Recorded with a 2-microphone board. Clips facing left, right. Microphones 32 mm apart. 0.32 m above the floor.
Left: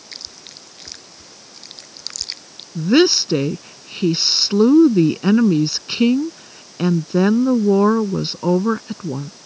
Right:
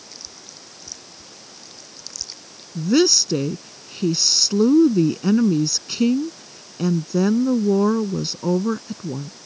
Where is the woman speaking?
35° left (ahead or behind).